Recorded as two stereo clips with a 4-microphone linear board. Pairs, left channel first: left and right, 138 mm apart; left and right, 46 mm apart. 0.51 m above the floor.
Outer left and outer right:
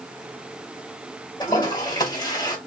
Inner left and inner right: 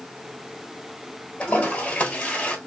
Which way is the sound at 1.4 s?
30° left (ahead or behind).